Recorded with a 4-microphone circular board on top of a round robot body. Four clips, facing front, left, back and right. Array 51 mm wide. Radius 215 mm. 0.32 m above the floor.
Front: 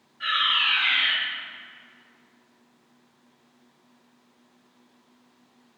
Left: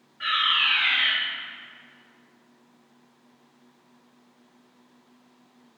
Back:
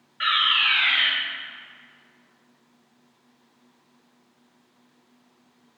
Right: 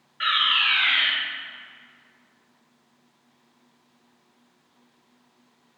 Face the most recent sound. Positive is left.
turn(degrees=-145)